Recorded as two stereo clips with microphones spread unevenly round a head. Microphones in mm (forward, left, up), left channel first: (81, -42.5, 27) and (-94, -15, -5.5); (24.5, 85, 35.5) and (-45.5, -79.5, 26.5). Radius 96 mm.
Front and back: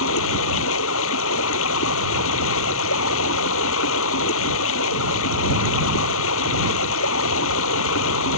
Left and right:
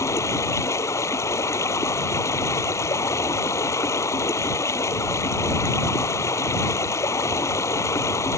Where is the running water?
10° right.